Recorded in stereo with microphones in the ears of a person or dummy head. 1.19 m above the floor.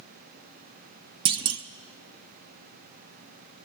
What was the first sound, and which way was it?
A clunk, 20° right (ahead or behind).